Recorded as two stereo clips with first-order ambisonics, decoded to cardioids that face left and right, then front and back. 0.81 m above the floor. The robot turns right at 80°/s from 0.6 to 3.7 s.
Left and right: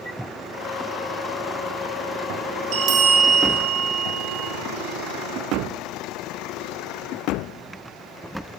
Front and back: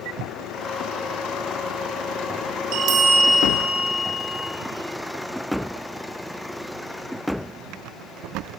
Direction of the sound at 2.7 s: 145° right.